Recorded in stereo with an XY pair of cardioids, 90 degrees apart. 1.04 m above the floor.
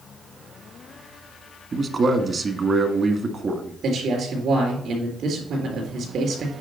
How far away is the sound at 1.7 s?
About 1.6 m.